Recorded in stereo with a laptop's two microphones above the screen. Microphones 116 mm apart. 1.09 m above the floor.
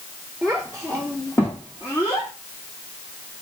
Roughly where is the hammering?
I don't hear hammering.